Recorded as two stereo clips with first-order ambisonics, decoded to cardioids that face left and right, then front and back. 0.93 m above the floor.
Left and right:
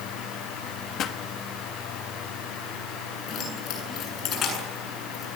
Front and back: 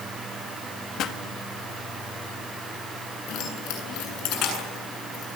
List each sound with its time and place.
1.0 s a pop: 45° left, 1.7 m
3.3 s keys jangling: 40° left, 8.5 m